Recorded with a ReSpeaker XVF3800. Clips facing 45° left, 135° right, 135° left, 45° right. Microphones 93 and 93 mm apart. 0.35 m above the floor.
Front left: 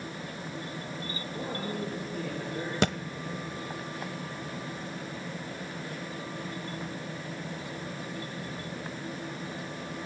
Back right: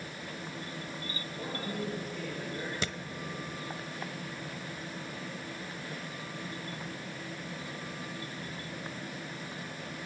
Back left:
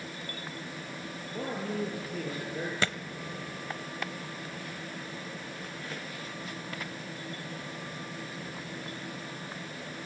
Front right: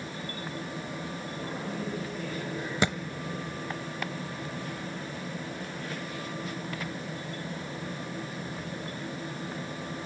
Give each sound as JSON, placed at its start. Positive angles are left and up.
{"t": 1.3, "sound": "a man speaking", "azimuth_deg": 95, "distance_m": 6.5}
{"t": 2.8, "sound": "a thud", "azimuth_deg": 25, "distance_m": 0.9}